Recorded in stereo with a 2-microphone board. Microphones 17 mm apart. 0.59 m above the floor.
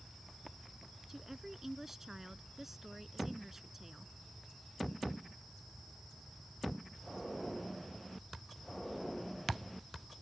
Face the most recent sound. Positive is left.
turn(degrees=-10)  # may be behind; listen again after turning